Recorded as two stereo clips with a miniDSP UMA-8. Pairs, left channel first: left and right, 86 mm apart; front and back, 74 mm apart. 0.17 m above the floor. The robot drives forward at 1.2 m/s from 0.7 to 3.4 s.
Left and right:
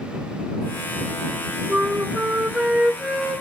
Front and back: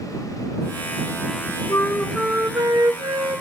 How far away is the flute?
About 0.7 m.